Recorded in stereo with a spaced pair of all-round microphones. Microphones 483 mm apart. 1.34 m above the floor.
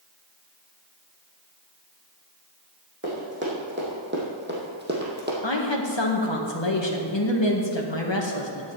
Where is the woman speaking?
65° left (ahead or behind), 1.7 m.